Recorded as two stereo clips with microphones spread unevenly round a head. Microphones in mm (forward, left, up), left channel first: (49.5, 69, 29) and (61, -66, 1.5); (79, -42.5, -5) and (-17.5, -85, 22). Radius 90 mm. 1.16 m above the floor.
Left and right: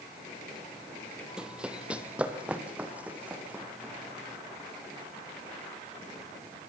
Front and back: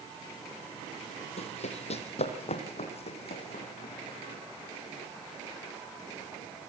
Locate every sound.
1.4 s running footsteps: 5° left, 1.9 m; by 4.4 s 5° right, 5.5 m